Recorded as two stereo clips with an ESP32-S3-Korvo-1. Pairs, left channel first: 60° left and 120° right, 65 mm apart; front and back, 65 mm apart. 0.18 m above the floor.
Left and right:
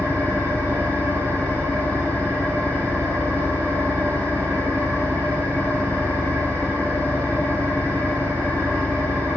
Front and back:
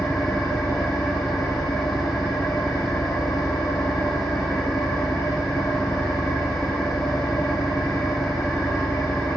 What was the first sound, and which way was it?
An engine running, 45° right.